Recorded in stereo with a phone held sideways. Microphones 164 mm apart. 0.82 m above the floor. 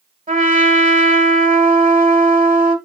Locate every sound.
0.3 s a trumpet: 55° right (ahead or behind), 2.5 m